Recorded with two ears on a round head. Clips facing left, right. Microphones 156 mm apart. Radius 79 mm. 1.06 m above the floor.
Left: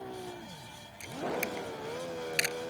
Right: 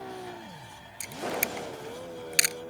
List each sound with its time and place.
1.0 s a camera shutter: 60° right (ahead or behind)